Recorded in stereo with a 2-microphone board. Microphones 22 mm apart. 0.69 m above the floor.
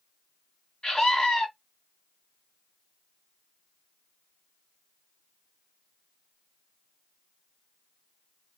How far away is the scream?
About 1.8 m.